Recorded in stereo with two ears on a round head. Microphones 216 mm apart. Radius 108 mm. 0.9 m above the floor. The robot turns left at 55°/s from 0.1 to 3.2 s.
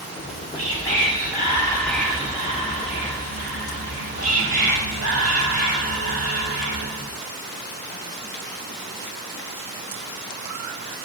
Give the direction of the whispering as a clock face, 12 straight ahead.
9 o'clock.